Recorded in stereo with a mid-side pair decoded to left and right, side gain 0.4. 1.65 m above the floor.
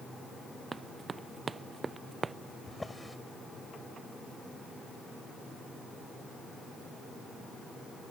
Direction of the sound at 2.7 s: 10° left.